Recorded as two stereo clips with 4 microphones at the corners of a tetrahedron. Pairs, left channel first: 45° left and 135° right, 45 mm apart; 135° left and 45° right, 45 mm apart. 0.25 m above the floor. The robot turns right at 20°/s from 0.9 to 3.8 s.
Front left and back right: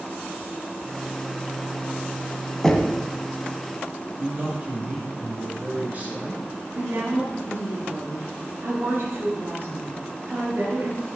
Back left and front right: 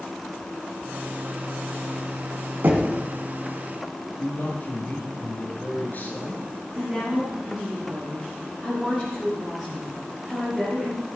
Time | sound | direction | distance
2.6 | knocking | 30° right | 1.8 m
4.2 | a man speaking | 175° left | 3.5 m
6.7 | a woman speaking | 125° right | 5.5 m